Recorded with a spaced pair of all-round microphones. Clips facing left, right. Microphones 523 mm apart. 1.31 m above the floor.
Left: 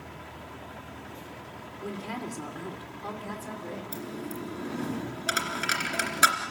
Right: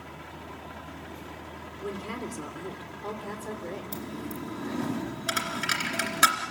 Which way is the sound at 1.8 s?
5° left (ahead or behind).